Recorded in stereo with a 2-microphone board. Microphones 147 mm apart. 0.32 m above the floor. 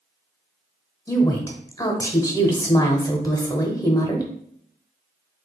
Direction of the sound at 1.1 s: 25° left (ahead or behind).